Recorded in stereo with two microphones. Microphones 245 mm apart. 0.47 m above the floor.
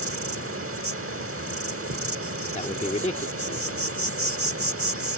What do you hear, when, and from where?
0.0 s an insect: 65° right (ahead or behind)
2.5 s a man speaking: 25° left (ahead or behind)